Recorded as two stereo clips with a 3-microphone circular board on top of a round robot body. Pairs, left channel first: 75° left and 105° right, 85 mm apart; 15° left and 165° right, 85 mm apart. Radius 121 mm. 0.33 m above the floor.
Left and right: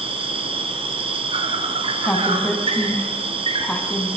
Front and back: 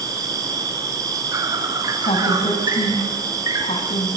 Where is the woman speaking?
Straight ahead, 4.5 m.